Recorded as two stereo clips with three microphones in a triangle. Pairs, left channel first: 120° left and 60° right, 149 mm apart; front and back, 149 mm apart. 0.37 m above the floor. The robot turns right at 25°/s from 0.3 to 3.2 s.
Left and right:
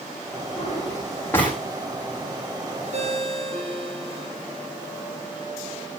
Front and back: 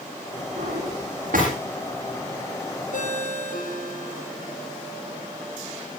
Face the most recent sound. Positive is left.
turn(degrees=-15)